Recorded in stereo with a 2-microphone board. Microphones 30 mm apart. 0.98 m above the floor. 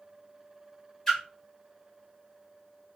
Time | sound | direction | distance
1.1 | a splash | 15° left (ahead or behind) | 1.5 m